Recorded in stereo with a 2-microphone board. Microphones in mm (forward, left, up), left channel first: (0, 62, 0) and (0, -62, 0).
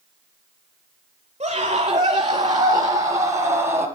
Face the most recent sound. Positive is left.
turn(degrees=-15)  # may be behind; listen again after turning